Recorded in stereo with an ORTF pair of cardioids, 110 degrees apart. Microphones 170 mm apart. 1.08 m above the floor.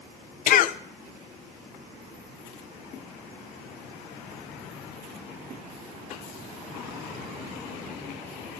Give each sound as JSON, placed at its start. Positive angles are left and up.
{"t": 0.5, "sound": "a cough", "azimuth_deg": 55, "distance_m": 0.6}